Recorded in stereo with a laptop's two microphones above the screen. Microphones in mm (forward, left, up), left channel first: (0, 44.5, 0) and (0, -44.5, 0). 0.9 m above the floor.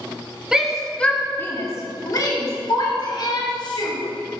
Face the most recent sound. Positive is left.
turn(degrees=60)  # may be behind; listen again after turning